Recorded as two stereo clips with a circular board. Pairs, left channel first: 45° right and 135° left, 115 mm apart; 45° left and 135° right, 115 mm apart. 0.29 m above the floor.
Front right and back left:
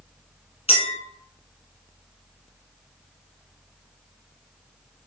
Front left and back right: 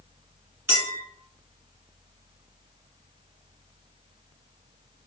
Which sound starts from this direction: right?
A clink, at 0.7 s.